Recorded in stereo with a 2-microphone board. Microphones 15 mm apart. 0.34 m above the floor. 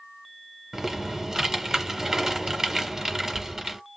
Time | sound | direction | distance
0.7 | typing on a keyboard | 35° right (ahead or behind) | 1.0 m